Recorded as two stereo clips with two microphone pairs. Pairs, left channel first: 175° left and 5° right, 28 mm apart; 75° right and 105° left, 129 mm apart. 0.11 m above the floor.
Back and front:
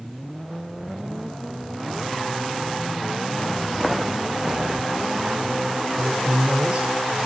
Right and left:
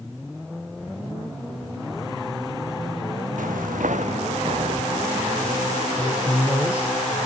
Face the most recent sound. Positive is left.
turn(degrees=30)